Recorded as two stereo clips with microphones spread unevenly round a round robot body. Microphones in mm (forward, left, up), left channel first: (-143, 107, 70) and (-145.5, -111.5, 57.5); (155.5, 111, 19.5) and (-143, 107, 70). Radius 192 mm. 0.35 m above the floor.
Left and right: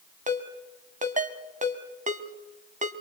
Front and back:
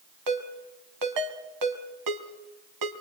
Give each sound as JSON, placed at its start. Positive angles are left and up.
{"t": 0.3, "sound": "a ringtone", "azimuth_deg": -145, "distance_m": 2.5}